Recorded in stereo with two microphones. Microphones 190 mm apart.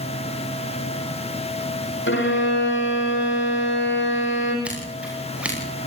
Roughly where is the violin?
Left.